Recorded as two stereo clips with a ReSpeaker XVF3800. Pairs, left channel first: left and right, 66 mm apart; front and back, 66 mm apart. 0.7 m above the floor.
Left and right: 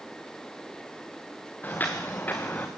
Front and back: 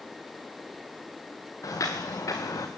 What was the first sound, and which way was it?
Footsteps, 25° left.